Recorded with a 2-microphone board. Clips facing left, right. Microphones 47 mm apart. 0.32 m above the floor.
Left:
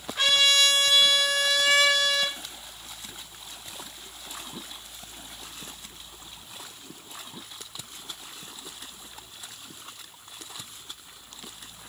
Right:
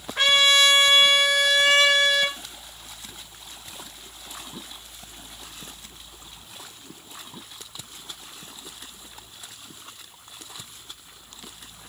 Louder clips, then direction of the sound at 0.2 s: Right 4 dB; 40° right (ahead or behind).